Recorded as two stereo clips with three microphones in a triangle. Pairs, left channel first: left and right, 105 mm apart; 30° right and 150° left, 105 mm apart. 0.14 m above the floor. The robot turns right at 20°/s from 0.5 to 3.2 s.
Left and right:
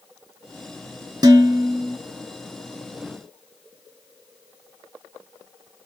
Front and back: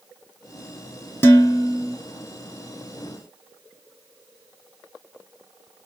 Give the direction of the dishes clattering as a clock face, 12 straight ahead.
3 o'clock.